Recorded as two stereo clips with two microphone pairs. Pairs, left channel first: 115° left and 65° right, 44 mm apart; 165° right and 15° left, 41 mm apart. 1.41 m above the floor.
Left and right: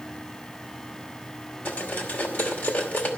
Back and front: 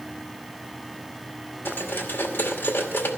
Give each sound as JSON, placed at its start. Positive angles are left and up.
{"t": 1.6, "sound": "cutlery clinking", "azimuth_deg": 160, "distance_m": 2.0}